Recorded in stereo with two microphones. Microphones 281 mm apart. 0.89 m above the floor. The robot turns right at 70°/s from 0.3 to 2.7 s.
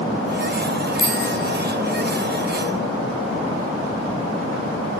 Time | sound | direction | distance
1.0 | a bicycle bell | 50° right (ahead or behind) | 5 m